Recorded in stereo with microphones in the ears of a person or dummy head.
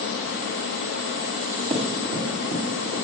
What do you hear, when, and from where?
1.7 s running footsteps: 40° right (ahead or behind), 2.5 m; by 3.0 s 35° right (ahead or behind), 3.5 m